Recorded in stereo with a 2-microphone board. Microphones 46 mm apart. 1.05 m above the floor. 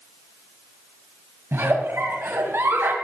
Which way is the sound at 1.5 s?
65° right (ahead or behind).